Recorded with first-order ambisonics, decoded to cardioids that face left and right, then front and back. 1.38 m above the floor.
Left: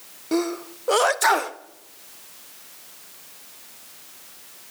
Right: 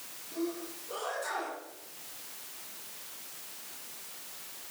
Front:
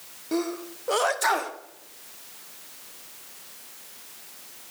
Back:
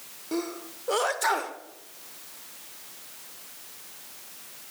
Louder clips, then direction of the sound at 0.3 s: Left 12 dB, front 4 dB; 80° left.